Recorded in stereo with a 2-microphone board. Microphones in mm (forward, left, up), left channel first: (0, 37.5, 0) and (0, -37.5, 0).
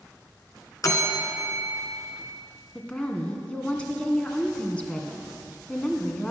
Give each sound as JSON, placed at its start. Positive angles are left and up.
{"t": 0.8, "sound": "a bell", "side_deg": 50, "distance_m": 1.7}
{"t": 2.8, "sound": "a woman speaking", "side_deg": 15, "distance_m": 1.9}